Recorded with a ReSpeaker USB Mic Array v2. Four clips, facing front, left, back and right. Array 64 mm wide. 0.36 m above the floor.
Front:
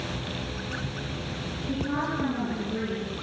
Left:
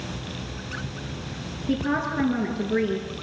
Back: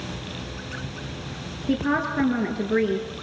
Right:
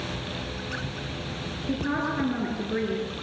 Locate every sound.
1.7 s a woman speaking: 170° left, 6.5 m